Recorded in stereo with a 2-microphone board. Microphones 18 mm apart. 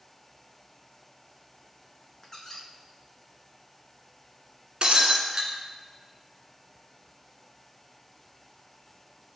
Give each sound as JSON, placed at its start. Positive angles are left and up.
{"t": 2.2, "sound": "a squeak", "side_deg": 35, "distance_m": 0.8}
{"t": 4.8, "sound": "breaking glass", "side_deg": -60, "distance_m": 1.3}